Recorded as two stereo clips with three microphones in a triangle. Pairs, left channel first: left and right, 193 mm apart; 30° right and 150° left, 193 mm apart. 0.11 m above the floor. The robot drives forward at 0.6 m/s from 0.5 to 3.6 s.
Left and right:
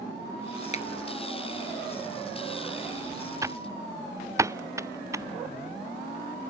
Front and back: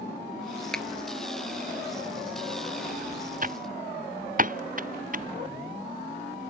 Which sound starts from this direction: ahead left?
A finger snap, at 0.7 s.